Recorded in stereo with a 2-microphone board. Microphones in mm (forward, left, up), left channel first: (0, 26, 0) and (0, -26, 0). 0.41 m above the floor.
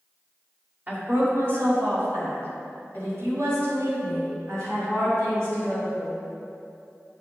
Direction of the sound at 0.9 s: 45° right (ahead or behind).